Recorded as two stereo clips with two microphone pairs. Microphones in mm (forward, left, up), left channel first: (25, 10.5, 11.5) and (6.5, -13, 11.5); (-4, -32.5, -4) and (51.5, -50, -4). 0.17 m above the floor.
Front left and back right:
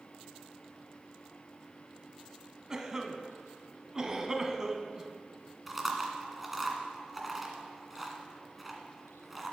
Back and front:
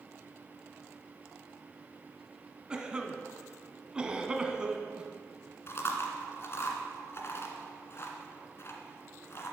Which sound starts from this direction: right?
A cough, at 2.7 s.